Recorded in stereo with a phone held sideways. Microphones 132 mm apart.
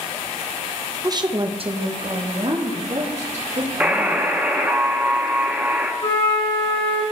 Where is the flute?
45° left (ahead or behind), 2 m.